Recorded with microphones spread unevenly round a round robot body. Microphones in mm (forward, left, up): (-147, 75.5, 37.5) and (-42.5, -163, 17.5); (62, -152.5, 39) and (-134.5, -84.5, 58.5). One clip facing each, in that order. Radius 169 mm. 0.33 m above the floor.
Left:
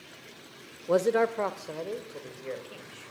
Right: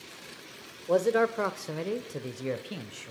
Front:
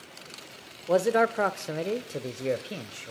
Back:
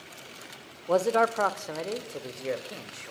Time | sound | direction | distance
0.9 | a man speaking | 40° left | 1.0 m